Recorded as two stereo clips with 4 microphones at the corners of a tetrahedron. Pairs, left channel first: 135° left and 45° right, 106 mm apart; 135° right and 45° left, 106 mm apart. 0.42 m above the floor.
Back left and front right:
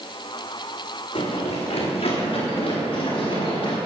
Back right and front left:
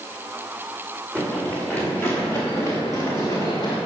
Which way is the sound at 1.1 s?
145° left.